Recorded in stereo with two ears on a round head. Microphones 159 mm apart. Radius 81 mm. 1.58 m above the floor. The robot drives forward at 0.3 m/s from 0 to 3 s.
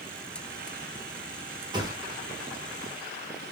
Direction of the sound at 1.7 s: 25° right (ahead or behind).